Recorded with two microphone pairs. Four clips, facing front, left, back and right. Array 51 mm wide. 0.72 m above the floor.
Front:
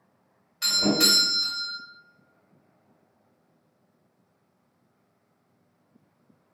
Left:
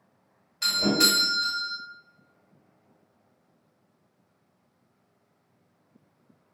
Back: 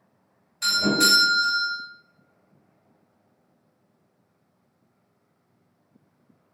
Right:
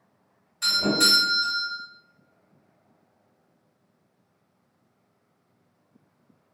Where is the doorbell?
55° left, 2.0 m.